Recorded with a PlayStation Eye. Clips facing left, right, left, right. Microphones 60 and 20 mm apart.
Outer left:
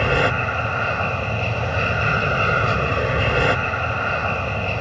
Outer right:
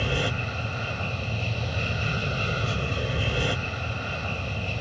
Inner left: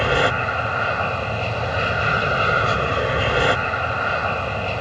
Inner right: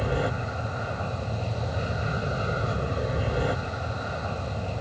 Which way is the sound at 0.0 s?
55° left (ahead or behind).